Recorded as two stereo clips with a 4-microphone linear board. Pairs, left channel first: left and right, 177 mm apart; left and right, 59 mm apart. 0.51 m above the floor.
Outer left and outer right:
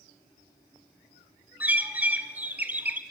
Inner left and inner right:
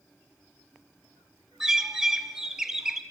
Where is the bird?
10° right (ahead or behind), 1.1 m.